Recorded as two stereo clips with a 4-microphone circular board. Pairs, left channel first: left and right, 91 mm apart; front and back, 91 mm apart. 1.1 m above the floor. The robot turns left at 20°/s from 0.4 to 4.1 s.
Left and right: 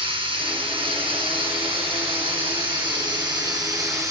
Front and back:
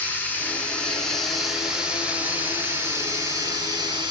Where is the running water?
70° right, 4.5 m; by 4.1 s 145° right, 4.5 m.